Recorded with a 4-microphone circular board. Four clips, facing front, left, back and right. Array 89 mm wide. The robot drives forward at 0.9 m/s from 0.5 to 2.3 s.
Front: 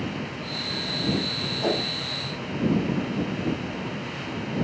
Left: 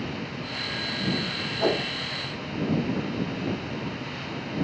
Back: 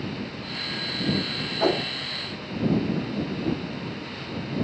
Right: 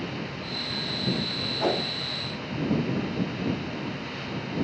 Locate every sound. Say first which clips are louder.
1.6 s a whoosh: left 1 dB, back 3 dB; 175° right, 2.5 m